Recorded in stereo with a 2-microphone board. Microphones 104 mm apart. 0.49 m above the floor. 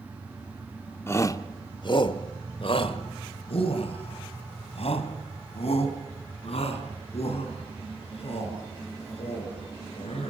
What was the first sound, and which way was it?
A shout, 25° left (ahead or behind).